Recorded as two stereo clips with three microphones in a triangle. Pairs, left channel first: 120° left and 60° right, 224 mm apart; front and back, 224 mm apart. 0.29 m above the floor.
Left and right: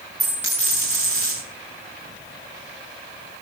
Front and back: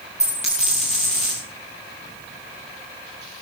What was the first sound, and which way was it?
A dropped coin, 60° right.